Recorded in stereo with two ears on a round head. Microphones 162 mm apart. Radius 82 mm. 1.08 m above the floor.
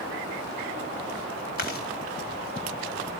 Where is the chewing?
55° left (ahead or behind), 3 m.